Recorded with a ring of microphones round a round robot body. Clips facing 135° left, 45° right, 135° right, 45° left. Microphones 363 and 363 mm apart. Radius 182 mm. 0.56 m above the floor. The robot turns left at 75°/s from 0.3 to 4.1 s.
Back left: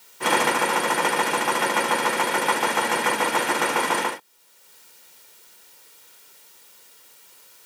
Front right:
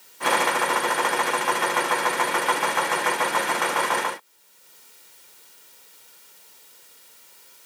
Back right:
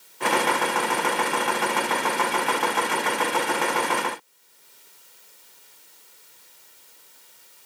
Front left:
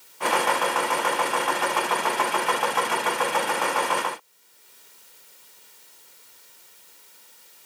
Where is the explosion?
I don't hear an explosion.